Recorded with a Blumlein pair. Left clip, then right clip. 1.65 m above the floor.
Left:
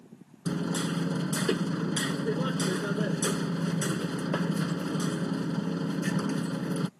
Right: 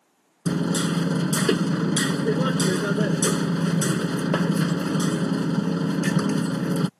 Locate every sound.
0.5 s hammering: 20° right